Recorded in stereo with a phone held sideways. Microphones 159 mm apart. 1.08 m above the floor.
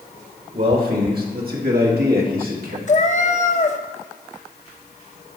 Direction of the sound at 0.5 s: 65° right (ahead or behind).